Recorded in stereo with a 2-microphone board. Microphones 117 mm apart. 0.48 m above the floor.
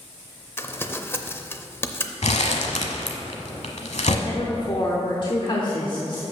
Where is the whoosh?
No whoosh in this recording.